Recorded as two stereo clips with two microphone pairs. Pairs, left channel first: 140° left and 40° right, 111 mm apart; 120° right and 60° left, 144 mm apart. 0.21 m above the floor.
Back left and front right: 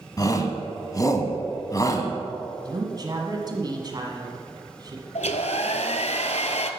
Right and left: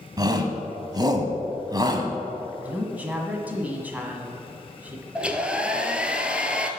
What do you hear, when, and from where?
0.2 s a shout: 105° left, 1.2 m
2.6 s a woman speaking: 15° right, 1.4 m
5.2 s a hair dryer: 145° left, 0.7 m